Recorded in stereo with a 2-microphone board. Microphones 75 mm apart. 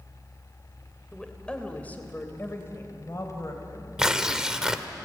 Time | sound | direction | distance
1.1 | a woman speaking | 5° left (ahead or behind) | 3 m
4.0 | tearing paper | 10° right (ahead or behind) | 1.1 m